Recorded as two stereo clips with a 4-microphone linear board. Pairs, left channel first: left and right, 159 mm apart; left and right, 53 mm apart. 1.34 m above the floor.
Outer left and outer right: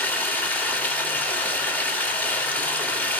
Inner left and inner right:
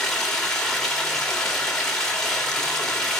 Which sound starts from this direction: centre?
Running water, at 0.0 s.